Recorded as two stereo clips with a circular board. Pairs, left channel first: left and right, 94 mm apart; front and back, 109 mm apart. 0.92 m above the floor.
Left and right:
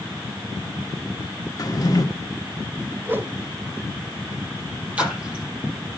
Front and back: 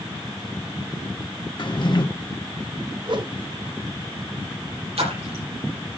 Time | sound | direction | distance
1.6 | a drawer | 40° left | 1.4 m
3.0 | a whoosh | 155° right | 1.1 m
5.0 | a splash | 165° right | 6 m